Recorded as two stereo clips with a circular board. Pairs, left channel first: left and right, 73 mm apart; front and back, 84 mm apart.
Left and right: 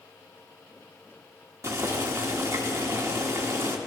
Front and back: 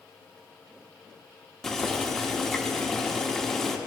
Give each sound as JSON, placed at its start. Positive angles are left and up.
{"t": 1.6, "sound": "boiling", "azimuth_deg": -80, "distance_m": 1.1}